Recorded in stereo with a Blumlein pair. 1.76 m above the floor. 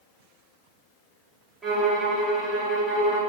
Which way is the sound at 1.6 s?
20° right.